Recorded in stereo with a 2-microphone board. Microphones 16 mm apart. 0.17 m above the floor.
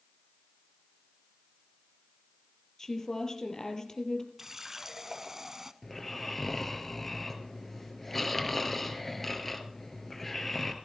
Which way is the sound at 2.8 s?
50° left (ahead or behind).